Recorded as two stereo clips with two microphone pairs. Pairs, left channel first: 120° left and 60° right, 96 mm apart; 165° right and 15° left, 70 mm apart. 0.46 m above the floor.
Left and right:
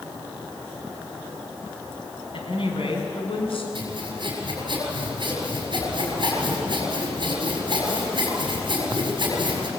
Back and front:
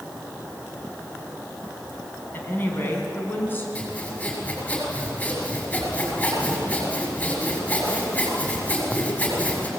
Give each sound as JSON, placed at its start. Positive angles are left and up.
{"t": 2.3, "sound": "a woman speaking", "azimuth_deg": 140, "distance_m": 3.5}
{"t": 3.8, "sound": "sawing", "azimuth_deg": -95, "distance_m": 6.5}